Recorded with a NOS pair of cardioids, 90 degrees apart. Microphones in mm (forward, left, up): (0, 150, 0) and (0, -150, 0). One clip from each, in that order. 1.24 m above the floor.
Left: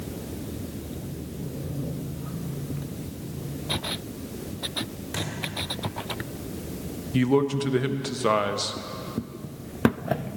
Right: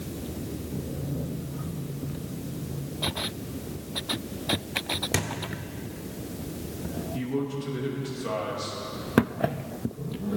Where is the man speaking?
70° left, 1.0 m.